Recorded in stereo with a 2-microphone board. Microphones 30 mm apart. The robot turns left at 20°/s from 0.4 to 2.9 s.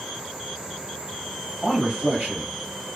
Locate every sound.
1.6 s a man speaking: 35° right (ahead or behind), 1.3 m; by 2.5 s 45° right (ahead or behind), 1.3 m